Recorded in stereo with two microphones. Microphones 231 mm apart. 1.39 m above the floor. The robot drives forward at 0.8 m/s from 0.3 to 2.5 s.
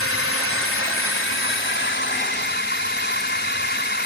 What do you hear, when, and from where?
0.0 s a drone: 65° left (ahead or behind); by 4.1 s 50° left (ahead or behind)